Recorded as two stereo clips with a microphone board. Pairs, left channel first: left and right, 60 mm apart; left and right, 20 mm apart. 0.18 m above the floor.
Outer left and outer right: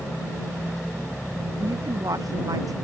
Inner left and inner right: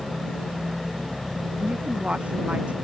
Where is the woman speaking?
85° right; by 2.8 s 80° right.